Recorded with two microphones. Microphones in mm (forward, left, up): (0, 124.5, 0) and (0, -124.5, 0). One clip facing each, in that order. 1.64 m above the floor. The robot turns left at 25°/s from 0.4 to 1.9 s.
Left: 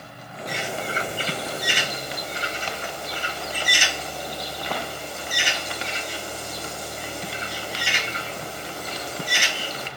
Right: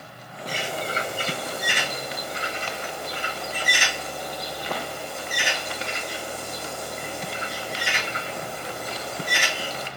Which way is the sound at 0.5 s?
35° right (ahead or behind).